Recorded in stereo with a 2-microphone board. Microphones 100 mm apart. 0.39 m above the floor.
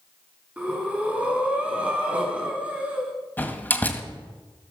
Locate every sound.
0.6 s breathing: 15° right (ahead or behind), 4 m
3.4 s a door slam: 20° left (ahead or behind), 1.9 m